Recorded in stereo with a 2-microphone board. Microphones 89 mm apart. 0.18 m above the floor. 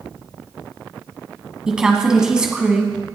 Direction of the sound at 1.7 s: 10° right (ahead or behind).